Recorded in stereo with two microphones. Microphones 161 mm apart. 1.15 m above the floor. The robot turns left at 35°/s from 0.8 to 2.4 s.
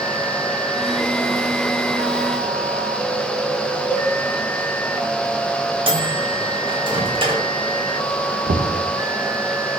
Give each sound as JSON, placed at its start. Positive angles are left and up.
{"t": 3.9, "sound": "a cowbell", "side_deg": 10, "distance_m": 1.5}
{"t": 5.9, "sound": "a microwave", "side_deg": -35, "distance_m": 1.3}
{"t": 8.5, "sound": "knocking", "side_deg": -75, "distance_m": 0.7}